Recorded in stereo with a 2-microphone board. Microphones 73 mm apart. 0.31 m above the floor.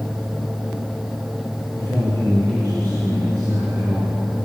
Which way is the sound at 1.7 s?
55° right (ahead or behind).